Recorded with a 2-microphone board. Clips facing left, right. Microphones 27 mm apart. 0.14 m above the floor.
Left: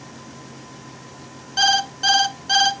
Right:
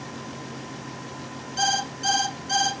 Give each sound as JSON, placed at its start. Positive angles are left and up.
{"t": 1.6, "sound": "an alarm clock", "side_deg": 40, "distance_m": 0.8}